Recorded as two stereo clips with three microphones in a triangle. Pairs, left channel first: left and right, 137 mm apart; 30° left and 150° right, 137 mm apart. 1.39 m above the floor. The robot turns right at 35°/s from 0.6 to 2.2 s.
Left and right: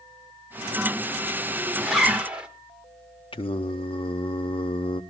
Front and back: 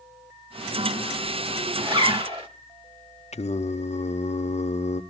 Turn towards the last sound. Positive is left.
turn(degrees=50)